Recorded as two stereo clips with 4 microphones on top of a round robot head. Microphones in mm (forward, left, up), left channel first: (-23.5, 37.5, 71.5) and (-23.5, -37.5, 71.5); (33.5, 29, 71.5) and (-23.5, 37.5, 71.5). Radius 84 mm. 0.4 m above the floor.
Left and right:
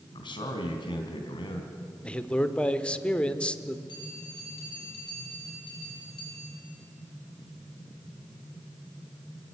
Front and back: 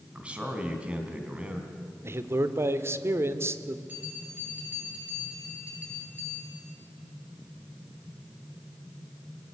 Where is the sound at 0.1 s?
100° left, 3.5 m.